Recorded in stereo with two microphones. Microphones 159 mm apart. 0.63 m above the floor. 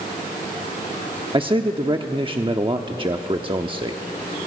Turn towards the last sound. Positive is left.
turn(degrees=-30)  # may be behind; listen again after turning